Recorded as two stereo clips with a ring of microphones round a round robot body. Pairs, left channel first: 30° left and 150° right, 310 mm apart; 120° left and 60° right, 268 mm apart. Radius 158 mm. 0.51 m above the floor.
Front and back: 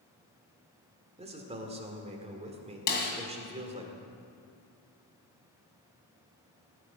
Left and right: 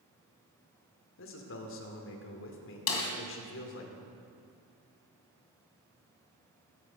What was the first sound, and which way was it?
A man speaking, 145° left.